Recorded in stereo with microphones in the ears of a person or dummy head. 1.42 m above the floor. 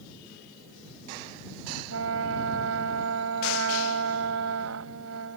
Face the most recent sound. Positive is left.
turn(degrees=-70)  # may be behind; listen again after turning